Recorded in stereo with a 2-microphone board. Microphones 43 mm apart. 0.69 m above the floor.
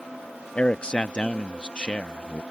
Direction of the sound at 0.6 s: 25° left (ahead or behind).